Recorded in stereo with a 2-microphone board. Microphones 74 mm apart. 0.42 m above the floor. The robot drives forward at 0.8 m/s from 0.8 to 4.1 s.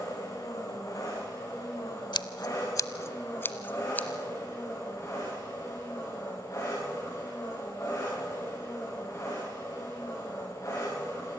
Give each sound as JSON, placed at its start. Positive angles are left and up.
{"t": 0.0, "sound": "an engine running", "side_deg": 45, "distance_m": 7.5}
{"t": 2.1, "sound": "scissors", "side_deg": 85, "distance_m": 0.7}